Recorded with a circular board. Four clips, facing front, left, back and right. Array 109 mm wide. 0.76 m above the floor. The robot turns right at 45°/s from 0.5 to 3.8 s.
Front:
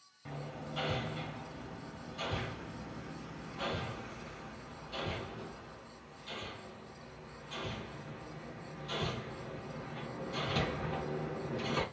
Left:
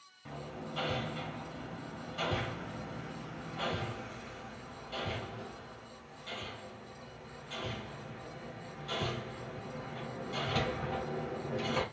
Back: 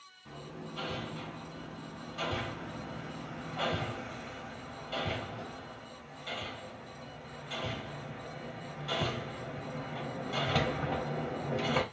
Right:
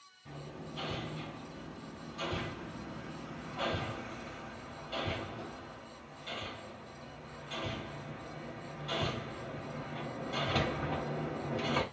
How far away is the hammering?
About 0.9 m.